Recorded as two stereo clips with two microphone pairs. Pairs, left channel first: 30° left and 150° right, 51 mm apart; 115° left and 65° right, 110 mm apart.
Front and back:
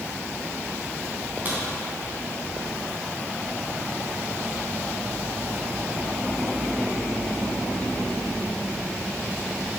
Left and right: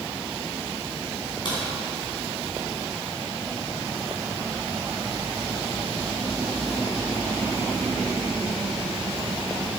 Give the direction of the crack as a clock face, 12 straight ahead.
7 o'clock.